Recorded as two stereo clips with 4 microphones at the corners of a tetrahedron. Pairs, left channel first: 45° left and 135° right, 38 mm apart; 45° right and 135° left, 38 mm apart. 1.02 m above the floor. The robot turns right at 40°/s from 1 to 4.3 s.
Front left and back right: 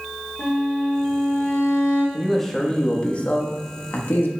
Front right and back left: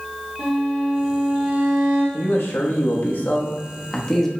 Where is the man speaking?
50° right, 1.1 m; by 4.3 s 35° left, 1.1 m.